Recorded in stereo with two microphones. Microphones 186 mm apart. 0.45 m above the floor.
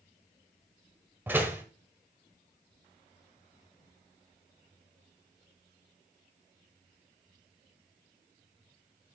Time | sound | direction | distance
1.3 | a door slam | 10° right (ahead or behind) | 1.4 m